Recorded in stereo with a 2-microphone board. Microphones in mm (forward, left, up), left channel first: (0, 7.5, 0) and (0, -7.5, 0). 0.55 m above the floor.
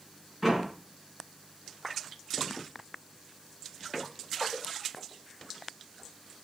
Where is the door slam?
Centre (ahead or behind), 5.5 m.